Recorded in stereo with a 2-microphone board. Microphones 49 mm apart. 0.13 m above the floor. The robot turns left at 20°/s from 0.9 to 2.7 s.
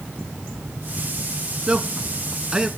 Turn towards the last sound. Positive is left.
turn(degrees=-15)  # may be behind; listen again after turning